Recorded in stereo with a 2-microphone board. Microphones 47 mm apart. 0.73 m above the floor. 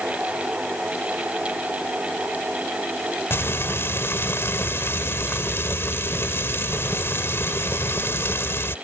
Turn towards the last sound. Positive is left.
turn(degrees=60)  # may be behind; listen again after turning